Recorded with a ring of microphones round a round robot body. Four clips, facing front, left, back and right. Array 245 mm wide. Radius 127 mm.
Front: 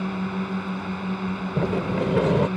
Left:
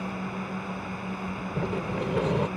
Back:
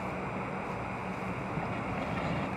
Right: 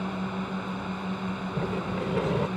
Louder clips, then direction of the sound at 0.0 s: Right 2 dB, front 8 dB; 10° right.